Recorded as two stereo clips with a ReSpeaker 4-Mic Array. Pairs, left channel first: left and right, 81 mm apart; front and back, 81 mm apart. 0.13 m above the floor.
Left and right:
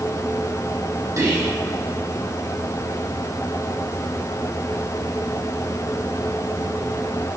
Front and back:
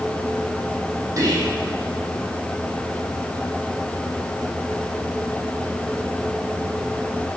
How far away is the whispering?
About 5 m.